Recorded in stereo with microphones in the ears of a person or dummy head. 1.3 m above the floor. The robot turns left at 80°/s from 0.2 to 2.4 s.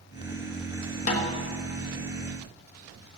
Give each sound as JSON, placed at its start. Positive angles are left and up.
{"t": 1.1, "sound": "a snare drum", "side_deg": 40, "distance_m": 1.2}